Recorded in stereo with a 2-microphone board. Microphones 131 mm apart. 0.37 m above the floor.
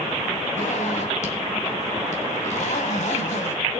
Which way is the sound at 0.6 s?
65° left (ahead or behind).